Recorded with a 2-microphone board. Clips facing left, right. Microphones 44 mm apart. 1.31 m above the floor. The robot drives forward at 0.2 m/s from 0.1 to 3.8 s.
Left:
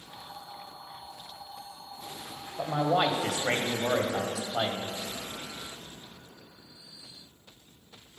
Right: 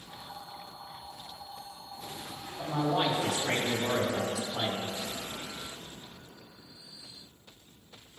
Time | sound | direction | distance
2.6 | a man speaking | 75° left (ahead or behind) | 1.2 m